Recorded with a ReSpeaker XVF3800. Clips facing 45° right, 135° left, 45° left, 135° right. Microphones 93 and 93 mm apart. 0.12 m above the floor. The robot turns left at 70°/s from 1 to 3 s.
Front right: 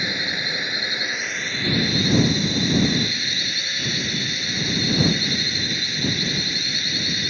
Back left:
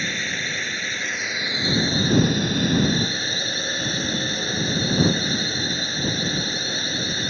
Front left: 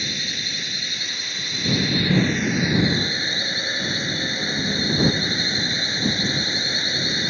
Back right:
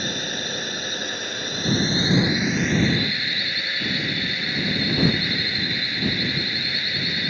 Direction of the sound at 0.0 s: 120° right.